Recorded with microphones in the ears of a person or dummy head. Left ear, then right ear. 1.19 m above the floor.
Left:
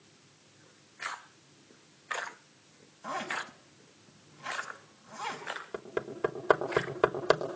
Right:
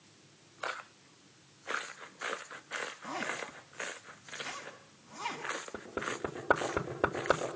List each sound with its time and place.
3.0 s a zipper: 35° left (ahead or behind), 5 m
5.7 s hammering: 55° left (ahead or behind), 3 m